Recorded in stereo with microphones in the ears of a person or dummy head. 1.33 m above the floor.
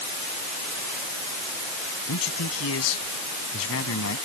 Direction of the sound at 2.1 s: 75° left (ahead or behind).